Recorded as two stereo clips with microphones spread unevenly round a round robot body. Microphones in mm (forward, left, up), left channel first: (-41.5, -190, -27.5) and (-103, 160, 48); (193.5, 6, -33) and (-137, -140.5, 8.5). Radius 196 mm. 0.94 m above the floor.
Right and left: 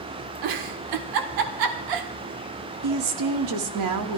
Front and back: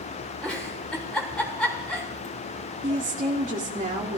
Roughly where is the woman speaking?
Behind left.